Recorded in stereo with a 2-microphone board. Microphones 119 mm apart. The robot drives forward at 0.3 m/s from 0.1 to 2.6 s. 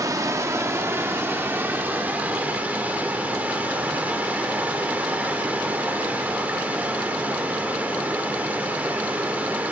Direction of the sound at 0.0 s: 25° right (ahead or behind).